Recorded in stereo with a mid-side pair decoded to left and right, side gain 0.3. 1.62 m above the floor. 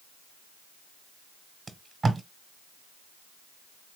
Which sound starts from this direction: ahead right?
Tape being pulled, at 1.7 s.